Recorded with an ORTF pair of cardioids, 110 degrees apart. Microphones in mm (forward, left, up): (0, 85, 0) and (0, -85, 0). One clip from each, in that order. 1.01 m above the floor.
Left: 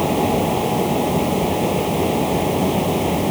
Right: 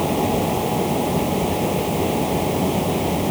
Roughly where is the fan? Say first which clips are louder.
Left 2 dB; ahead.